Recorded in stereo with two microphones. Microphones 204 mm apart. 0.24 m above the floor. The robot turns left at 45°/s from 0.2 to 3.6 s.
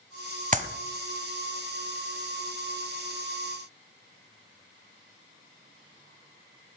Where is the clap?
35° right (ahead or behind), 1.4 m.